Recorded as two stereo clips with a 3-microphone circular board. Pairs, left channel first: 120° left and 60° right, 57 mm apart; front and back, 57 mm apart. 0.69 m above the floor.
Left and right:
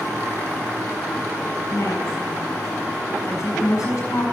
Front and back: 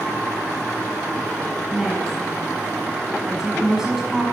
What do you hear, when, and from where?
1.7 s a woman speaking: 100° left, 6 m